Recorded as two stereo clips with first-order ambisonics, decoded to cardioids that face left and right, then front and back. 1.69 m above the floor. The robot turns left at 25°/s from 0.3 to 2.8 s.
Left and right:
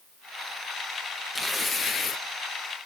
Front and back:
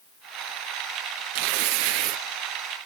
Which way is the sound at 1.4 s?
Straight behind.